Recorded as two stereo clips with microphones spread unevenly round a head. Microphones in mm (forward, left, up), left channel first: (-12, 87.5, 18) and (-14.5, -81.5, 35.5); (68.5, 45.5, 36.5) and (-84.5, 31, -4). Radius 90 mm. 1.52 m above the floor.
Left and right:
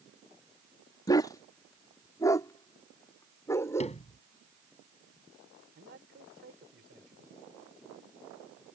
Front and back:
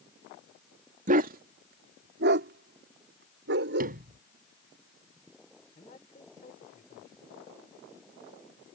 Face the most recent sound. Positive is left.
turn(degrees=-50)